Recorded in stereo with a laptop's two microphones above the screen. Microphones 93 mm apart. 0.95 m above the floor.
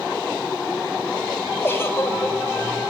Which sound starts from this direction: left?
A giggle, at 1.6 s.